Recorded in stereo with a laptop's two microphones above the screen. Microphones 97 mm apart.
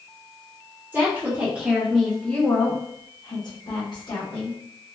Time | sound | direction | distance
0.9 | a woman speaking | 25° right (ahead or behind) | 1.0 m